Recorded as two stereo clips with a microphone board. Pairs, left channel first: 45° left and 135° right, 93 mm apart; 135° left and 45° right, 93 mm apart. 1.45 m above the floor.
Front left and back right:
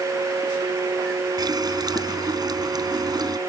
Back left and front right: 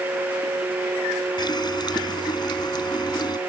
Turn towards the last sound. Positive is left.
turn(degrees=180)